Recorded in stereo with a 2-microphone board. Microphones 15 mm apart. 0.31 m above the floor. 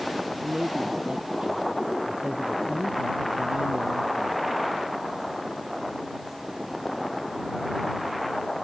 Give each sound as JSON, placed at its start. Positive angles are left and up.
{"t": 0.4, "sound": "a man speaking", "side_deg": -75}